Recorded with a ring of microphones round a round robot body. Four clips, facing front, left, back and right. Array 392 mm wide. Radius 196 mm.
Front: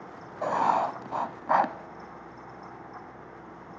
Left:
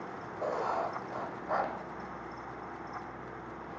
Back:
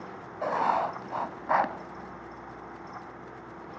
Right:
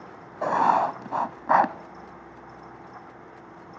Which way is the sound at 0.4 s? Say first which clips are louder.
Right 12 dB, front 2 dB; 80° right.